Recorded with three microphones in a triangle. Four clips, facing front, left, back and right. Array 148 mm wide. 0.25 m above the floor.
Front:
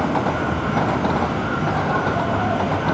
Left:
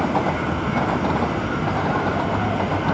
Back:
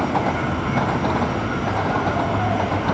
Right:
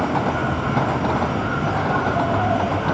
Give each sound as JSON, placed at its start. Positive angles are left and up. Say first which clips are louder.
{"t": 0.0, "sound": "an insect", "louder": "even, front 1 dB", "azimuth_deg": -45, "distance_m": 2.0}